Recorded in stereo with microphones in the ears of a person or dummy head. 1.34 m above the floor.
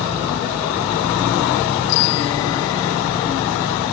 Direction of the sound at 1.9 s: 80° left.